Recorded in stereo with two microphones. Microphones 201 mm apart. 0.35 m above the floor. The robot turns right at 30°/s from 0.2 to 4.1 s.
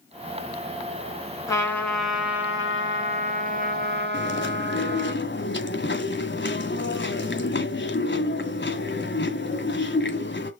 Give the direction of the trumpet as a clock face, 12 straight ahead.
7 o'clock.